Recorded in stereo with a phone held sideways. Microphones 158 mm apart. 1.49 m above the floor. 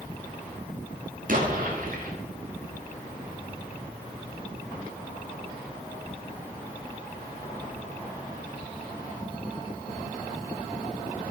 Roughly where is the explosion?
Right.